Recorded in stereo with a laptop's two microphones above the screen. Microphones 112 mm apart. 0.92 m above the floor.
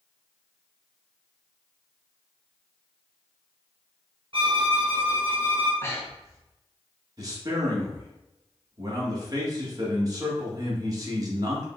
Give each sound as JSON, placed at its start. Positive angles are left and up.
{"t": 4.3, "sound": "a violin", "side_deg": -50, "distance_m": 1.2}
{"t": 5.8, "sound": "breathing", "side_deg": 25, "distance_m": 1.2}
{"t": 7.2, "sound": "a man speaking", "side_deg": -35, "distance_m": 1.8}